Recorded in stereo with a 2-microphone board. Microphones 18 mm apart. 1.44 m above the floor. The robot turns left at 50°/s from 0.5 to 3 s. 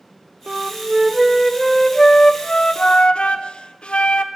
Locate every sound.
0.5 s a flute: 135° right, 0.7 m; by 4.2 s 100° left, 0.7 m